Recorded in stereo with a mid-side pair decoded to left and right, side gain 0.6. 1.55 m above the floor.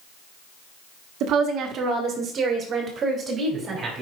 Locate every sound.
1.2 s a woman speaking: 65° right, 1.4 m; by 4.0 s 35° right, 3 m